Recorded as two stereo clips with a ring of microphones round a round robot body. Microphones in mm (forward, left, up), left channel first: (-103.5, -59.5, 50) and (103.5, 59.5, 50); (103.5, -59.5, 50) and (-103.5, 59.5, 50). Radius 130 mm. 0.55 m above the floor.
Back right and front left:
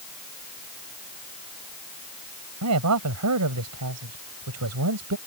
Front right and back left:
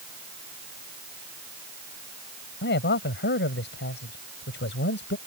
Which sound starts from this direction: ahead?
A man speaking, at 2.6 s.